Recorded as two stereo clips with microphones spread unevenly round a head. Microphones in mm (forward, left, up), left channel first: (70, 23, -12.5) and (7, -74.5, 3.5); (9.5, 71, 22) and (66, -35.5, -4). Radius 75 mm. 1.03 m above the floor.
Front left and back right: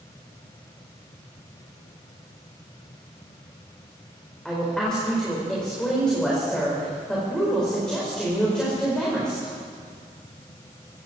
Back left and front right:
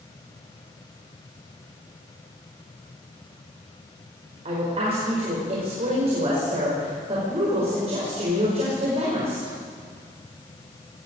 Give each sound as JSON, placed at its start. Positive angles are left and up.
{"t": 4.5, "sound": "a woman speaking", "azimuth_deg": -30, "distance_m": 4.5}